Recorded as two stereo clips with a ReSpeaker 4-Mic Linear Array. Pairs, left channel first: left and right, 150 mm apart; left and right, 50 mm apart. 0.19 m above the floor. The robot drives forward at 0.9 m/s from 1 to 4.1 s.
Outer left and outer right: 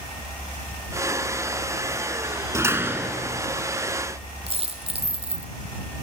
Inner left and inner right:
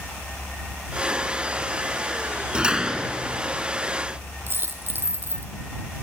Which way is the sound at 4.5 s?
40° right (ahead or behind).